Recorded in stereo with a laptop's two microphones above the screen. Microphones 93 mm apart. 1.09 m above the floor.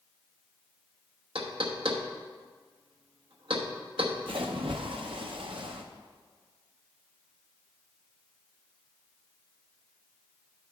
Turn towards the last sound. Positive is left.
turn(degrees=-65)  # may be behind; listen again after turning